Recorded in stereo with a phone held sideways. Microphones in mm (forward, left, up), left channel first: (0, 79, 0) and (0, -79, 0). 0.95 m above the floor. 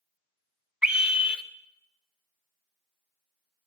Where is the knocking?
No knocking in this recording.